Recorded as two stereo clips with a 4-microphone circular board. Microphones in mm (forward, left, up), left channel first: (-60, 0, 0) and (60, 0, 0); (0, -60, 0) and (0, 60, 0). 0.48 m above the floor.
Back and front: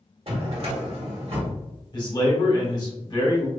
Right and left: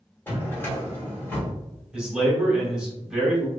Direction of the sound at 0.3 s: 20° right.